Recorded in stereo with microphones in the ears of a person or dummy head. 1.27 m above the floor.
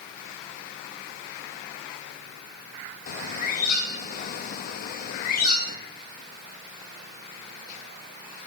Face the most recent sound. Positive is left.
turn(degrees=50)  # may be behind; listen again after turning